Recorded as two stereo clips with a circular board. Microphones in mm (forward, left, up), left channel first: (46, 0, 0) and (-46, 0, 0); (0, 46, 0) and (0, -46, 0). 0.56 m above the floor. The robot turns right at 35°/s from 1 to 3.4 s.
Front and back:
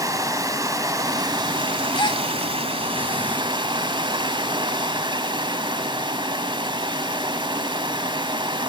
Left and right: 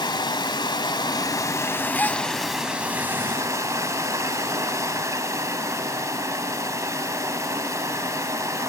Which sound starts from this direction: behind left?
Running water, at 0.0 s.